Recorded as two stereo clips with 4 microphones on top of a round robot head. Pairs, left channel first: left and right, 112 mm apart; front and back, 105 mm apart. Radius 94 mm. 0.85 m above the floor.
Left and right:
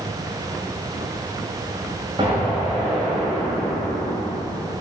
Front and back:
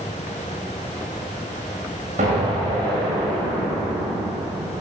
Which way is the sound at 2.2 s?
155° right.